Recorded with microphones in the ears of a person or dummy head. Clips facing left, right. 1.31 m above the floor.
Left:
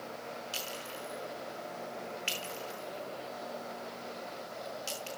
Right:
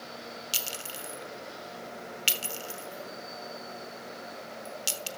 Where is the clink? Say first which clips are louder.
Even; 45° right (ahead or behind), 1.0 m.